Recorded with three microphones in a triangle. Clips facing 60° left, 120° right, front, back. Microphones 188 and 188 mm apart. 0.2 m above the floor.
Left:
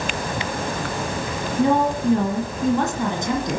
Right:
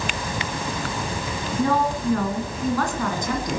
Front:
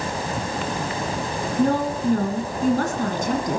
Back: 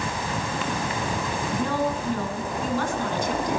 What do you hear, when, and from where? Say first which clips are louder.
1.6 s a woman speaking: left 4 dB, front 7 dB; straight ahead, 1.9 m